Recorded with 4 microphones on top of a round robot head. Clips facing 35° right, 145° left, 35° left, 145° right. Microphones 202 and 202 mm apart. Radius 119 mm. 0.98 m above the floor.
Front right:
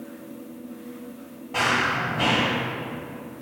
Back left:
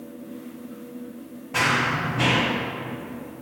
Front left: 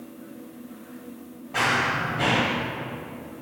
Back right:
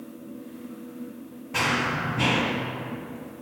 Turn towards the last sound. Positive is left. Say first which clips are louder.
# back left 1 dB, even
turn(degrees=-155)